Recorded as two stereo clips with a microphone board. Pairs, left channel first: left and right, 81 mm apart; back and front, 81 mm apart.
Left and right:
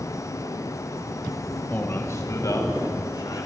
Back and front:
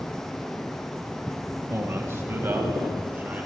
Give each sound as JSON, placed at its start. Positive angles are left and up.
{"t": 1.7, "sound": "a man speaking", "azimuth_deg": 35, "distance_m": 1.3}